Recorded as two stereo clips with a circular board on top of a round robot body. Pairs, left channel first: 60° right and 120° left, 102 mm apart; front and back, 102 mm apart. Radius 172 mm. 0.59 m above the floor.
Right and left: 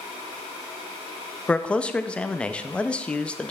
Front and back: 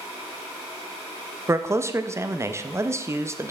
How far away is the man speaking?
About 0.7 m.